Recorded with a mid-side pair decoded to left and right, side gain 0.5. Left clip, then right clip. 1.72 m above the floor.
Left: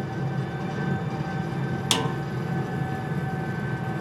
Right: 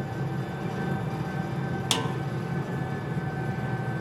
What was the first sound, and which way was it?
An engine running, 15° left.